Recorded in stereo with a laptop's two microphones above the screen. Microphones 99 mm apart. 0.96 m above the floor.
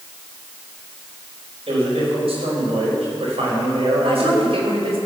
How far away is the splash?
I don't hear a splash.